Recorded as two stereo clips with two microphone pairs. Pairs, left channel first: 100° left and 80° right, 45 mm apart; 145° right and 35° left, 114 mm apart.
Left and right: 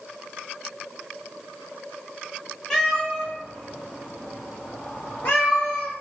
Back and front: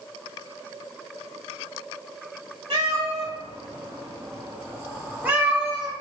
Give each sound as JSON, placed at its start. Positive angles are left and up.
{"t": 2.7, "sound": "a cat meowing", "azimuth_deg": 30, "distance_m": 1.6}